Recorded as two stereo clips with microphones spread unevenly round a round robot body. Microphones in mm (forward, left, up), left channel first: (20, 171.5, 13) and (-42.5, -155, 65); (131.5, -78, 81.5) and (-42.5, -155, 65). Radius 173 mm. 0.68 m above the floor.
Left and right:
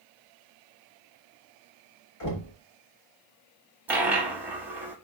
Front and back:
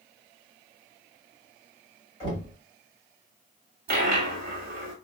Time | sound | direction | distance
2.2 | knocking | 90° left | 1.5 m
3.9 | a dropped coin | 170° right | 0.6 m